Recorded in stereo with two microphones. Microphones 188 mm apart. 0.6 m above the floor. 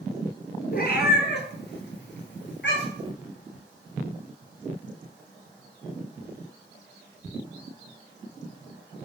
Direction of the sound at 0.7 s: 55° left (ahead or behind).